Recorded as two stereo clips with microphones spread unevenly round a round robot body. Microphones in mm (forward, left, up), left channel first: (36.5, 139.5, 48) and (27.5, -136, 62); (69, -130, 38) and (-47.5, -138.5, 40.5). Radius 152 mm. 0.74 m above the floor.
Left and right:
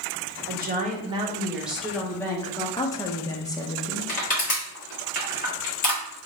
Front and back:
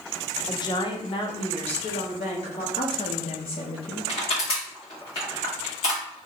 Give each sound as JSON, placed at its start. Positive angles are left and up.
{"t": 0.5, "sound": "a woman speaking", "azimuth_deg": -45, "distance_m": 1.0}
{"t": 2.8, "sound": "a woman speaking", "azimuth_deg": 15, "distance_m": 1.0}
{"t": 4.1, "sound": "crushing", "azimuth_deg": 35, "distance_m": 1.9}